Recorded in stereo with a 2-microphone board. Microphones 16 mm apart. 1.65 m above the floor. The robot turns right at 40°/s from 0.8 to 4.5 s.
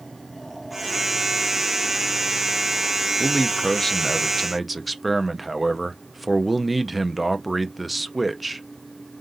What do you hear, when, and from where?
3.2 s a man speaking: 130° left, 0.5 m; by 8.6 s 175° right, 0.5 m